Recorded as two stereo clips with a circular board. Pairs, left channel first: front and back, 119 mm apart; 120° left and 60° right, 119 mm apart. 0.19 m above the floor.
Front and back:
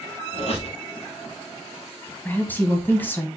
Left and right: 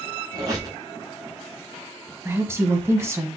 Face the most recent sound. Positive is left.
turn(degrees=-45)